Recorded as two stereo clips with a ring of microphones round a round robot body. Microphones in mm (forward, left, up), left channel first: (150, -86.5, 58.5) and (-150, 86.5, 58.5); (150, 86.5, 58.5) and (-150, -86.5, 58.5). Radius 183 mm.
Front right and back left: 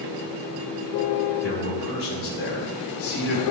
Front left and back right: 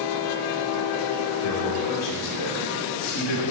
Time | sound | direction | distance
1.4 | a man speaking | 25° left | 5.5 m